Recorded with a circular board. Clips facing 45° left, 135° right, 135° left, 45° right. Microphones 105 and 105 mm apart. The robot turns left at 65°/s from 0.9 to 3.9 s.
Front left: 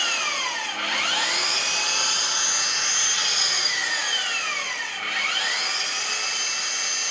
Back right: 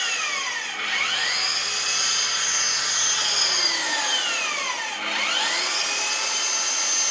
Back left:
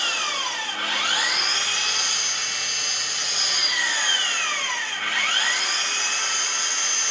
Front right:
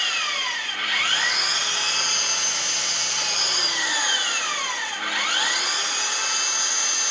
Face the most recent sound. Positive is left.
turn(degrees=-120)